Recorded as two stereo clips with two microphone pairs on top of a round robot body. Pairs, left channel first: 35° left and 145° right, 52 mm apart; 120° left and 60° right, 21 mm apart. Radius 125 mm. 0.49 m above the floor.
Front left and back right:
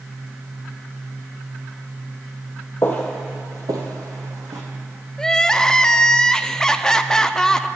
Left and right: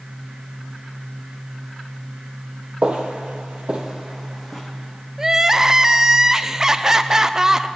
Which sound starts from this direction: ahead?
Footsteps, at 2.8 s.